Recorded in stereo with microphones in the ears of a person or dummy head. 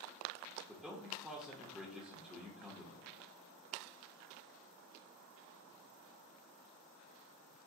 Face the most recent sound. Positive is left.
turn(degrees=5)  # may be behind; listen again after turning